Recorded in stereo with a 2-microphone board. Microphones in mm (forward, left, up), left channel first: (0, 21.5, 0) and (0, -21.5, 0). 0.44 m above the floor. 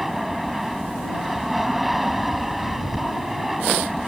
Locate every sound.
0.0 s an aircraft: 5° right (ahead or behind)